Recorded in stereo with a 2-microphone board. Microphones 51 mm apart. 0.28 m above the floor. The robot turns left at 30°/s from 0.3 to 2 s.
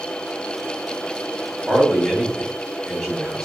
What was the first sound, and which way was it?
A man speaking, centre (ahead or behind).